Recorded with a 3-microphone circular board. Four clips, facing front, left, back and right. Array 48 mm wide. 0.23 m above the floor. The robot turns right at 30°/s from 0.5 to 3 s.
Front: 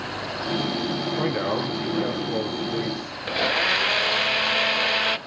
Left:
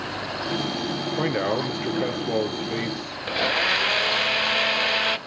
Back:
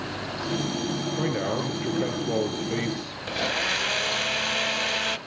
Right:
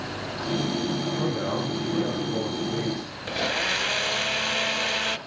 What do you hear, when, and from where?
1.2 s a man speaking: 80° left, 4.5 m; by 3.2 s 135° left, 4.5 m
3.3 s a blender: 45° left, 0.6 m